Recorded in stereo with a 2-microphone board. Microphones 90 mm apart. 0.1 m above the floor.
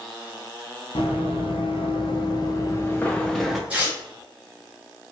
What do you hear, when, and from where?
0.9 s running footsteps: 85° left, 1.2 m; by 3.6 s 5° right (ahead or behind), 0.8 m
3.7 s tearing paper: 20° right (ahead or behind), 1.1 m